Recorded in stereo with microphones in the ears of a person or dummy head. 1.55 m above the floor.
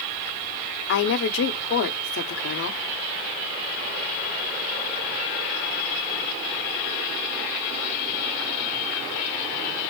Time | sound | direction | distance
0.9 | a woman speaking | 60° left (ahead or behind) | 0.8 m